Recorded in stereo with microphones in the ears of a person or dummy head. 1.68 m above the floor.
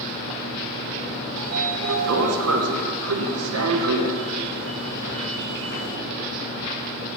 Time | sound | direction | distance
1.4 | a sliding door | 80° right | 1.0 m